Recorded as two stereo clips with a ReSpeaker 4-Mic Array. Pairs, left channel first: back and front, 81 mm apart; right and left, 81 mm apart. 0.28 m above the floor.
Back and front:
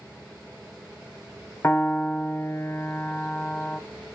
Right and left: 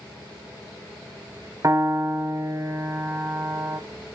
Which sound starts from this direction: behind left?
A piano, at 1.6 s.